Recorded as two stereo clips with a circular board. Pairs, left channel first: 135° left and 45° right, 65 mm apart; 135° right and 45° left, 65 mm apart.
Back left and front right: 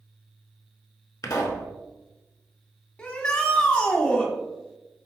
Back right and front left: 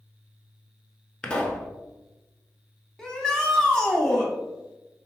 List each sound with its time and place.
1.2 s a pop: 155° left, 0.8 m
3.0 s a shout: 165° left, 1.0 m